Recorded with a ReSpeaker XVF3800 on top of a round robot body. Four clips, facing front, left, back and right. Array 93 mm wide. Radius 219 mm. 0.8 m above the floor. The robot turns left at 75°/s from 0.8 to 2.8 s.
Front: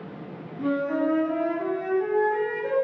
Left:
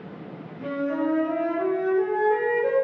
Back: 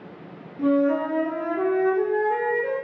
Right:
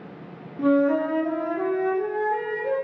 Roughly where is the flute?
Right.